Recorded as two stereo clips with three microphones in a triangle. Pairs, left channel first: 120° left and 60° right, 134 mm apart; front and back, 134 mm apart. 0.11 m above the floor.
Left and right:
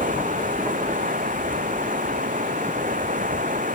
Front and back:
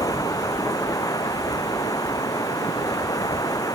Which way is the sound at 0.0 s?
65° right.